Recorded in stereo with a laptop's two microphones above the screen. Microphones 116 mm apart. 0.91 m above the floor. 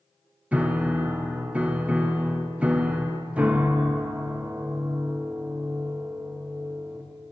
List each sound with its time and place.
0.5 s a piano: 10° right (ahead or behind), 0.5 m